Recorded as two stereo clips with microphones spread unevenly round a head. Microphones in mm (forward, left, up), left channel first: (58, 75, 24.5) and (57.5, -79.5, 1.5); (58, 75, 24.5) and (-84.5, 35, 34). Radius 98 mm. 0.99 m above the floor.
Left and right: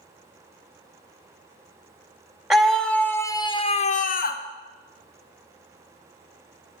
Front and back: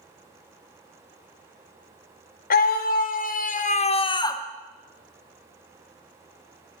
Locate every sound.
2.5 s a scream: 5° right, 1.5 m; by 4.4 s 80° left, 1.0 m